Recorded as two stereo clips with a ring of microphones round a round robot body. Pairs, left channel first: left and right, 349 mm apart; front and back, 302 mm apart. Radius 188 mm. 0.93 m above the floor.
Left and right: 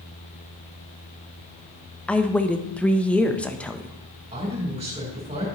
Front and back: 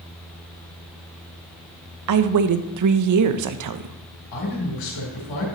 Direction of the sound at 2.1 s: 175° left.